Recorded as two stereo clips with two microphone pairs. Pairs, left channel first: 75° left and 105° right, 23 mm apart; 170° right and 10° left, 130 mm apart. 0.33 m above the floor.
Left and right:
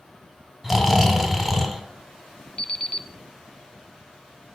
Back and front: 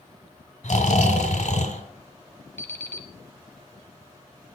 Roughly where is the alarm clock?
Behind left.